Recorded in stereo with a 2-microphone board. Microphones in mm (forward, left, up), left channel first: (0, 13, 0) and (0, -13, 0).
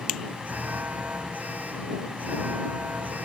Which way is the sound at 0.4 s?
80° right.